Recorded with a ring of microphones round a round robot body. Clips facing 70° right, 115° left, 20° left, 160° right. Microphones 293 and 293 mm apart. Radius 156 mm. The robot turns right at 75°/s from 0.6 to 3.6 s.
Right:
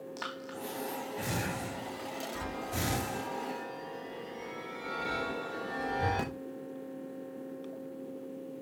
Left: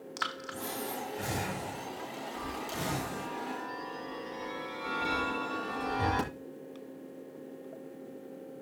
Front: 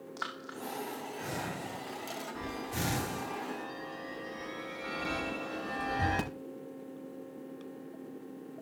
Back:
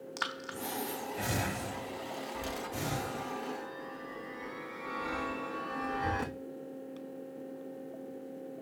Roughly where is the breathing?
Behind.